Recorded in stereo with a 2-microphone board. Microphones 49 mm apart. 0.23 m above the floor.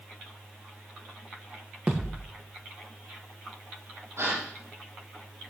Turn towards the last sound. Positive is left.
turn(degrees=-80)